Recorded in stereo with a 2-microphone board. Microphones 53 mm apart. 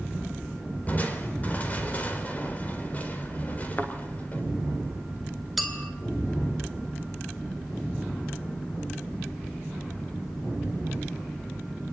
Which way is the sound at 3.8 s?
40° left (ahead or behind).